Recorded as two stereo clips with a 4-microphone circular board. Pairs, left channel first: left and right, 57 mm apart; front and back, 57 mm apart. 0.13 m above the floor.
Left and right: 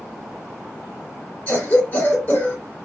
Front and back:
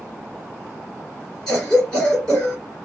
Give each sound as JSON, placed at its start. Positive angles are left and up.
{"t": 1.5, "sound": "a cough", "azimuth_deg": 70, "distance_m": 1.8}